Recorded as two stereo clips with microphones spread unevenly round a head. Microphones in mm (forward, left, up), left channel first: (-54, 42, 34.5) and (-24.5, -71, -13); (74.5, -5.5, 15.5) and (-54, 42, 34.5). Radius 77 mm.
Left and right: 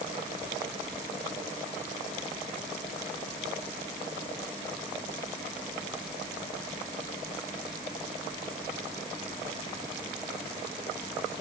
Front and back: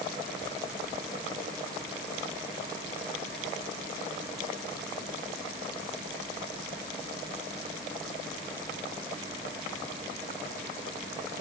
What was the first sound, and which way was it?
Only background noise.